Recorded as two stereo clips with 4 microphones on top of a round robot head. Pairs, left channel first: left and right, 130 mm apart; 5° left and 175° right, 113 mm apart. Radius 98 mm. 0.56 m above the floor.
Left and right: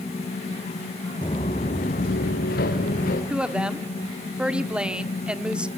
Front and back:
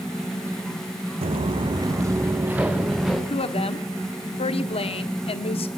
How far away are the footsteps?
About 2 m.